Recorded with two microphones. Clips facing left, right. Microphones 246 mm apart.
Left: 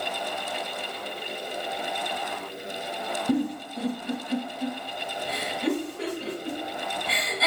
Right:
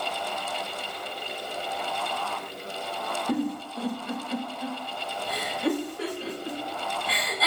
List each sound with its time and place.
3.3 s a giggle: 25° left (ahead or behind), 2 m